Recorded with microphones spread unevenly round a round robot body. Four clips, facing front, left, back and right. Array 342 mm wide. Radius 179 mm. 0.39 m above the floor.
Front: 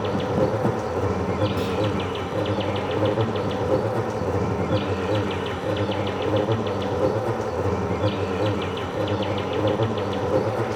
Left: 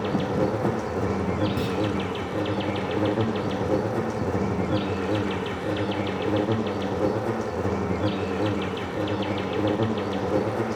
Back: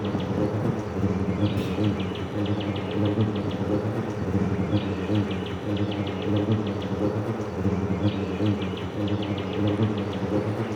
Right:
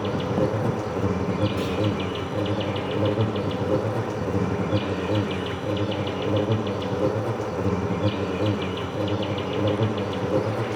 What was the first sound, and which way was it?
An insect, 30° left.